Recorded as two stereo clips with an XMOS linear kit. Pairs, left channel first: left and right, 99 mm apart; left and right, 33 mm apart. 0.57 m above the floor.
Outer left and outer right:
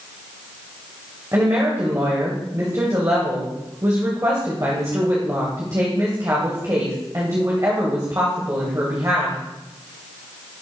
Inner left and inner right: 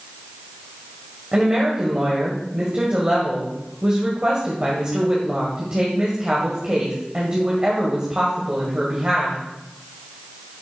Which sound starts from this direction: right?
A woman speaking, at 1.3 s.